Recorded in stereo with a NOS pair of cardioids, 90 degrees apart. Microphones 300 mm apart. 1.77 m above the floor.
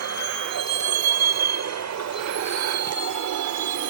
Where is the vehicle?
60° right; by 3.9 s 65° right.